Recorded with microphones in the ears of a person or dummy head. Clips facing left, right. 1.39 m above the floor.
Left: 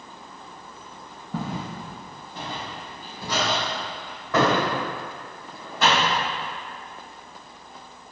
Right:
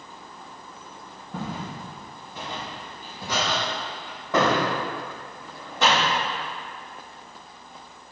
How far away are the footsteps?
About 1.9 m.